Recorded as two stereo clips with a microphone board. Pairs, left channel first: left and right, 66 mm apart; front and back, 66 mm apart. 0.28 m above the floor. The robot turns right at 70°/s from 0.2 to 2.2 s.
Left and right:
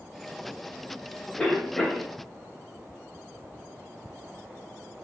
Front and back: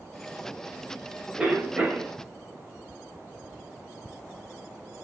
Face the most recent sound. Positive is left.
turn(degrees=-170)